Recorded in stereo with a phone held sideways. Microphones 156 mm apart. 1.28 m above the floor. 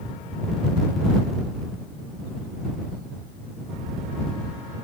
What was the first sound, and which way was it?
Only background noise.